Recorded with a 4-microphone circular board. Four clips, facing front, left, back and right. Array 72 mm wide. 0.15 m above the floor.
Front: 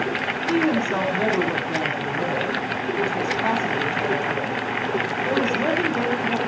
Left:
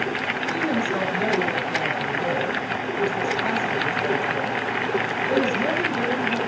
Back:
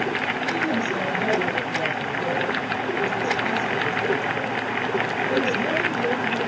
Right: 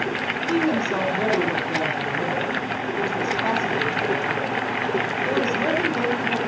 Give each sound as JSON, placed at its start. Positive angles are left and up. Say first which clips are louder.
{"t": 0.5, "sound": "a woman speaking", "louder": "right 3 dB, front 6 dB", "azimuth_deg": -30, "distance_m": 5.0}